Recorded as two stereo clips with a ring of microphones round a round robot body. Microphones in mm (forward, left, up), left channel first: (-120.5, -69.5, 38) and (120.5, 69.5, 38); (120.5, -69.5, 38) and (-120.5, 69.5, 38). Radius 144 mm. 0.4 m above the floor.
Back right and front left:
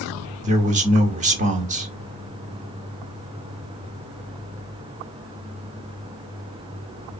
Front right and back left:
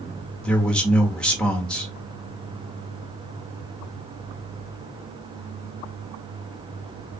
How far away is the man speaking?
About 1.1 m.